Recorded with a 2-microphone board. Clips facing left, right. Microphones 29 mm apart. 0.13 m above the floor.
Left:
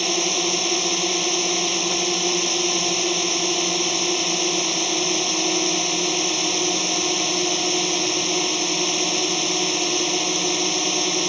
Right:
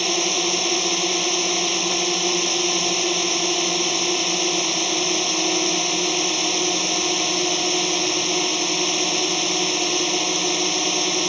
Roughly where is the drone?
Centre.